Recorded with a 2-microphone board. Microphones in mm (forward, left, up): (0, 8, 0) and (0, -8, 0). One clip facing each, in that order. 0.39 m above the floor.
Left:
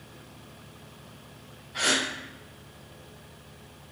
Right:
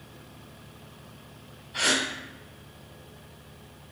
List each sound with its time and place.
1.7 s a gasp: 75° right (ahead or behind), 1.6 m